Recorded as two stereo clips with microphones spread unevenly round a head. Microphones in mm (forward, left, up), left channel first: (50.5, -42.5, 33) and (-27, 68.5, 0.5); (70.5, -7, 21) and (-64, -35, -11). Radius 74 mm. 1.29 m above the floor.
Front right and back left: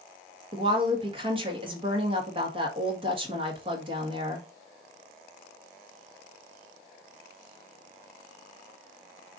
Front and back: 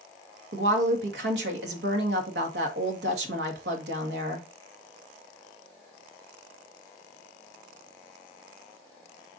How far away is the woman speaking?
About 1.7 m.